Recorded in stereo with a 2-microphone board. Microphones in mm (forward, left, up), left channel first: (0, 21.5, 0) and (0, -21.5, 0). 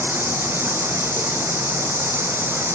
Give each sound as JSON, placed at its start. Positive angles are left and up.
{"t": 0.0, "sound": "running water", "side_deg": -55}